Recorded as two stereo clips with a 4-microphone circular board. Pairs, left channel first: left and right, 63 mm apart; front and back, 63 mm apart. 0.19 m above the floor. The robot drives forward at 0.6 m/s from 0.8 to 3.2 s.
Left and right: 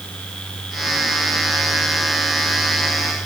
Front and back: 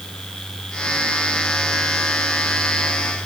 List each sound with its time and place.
Only background noise.